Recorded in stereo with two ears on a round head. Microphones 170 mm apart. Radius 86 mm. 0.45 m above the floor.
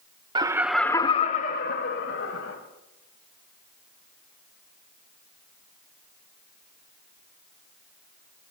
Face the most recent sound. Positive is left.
turn(degrees=70)  # may be behind; listen again after turning